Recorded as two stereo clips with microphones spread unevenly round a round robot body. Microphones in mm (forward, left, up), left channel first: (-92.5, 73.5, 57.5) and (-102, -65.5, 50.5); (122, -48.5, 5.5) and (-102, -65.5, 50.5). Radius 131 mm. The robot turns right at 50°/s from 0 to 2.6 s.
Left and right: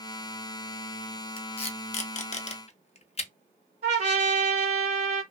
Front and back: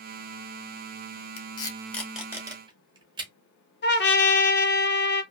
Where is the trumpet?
35° right, 1.2 m.